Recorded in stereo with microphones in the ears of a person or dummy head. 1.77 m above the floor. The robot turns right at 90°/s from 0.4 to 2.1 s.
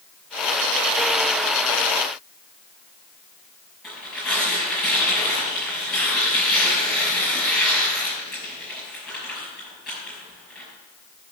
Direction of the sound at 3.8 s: Centre (ahead or behind).